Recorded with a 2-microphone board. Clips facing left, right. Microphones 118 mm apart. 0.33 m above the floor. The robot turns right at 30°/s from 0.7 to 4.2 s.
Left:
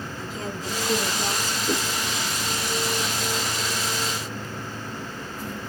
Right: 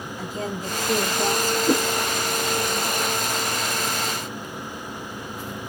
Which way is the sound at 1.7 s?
70° right (ahead or behind).